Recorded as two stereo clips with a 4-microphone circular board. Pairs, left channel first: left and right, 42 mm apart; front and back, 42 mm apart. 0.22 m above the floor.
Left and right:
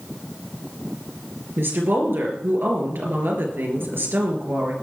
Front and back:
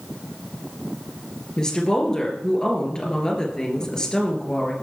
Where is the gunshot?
I don't hear a gunshot.